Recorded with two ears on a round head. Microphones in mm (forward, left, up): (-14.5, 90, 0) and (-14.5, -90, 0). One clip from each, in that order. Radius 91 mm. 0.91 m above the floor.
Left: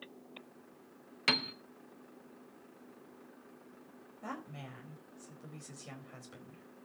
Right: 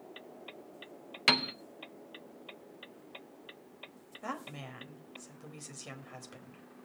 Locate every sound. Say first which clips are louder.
1.3 s a piano: right 4 dB; 15° right (ahead or behind), 0.8 m
4.2 s a woman speaking: right 4 dB; 25° right (ahead or behind), 4 m